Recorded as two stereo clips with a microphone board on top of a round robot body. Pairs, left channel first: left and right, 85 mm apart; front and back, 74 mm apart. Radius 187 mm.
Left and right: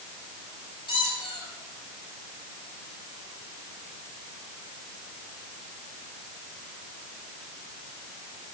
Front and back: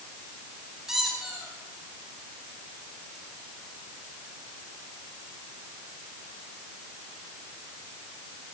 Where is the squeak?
95° left, 6.5 m.